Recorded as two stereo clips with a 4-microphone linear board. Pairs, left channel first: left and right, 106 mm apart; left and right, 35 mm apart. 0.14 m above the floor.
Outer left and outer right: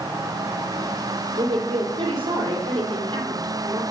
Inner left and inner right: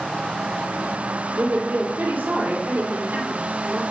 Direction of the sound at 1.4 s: 55° right (ahead or behind).